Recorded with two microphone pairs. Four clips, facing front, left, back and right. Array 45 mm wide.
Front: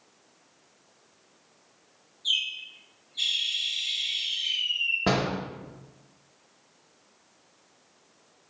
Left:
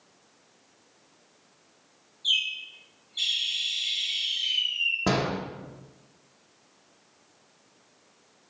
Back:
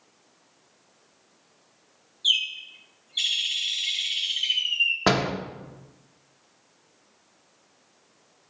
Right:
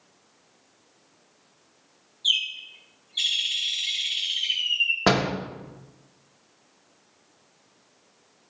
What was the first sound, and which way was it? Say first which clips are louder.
A bird: right 1 dB, back 4 dB; 165° right.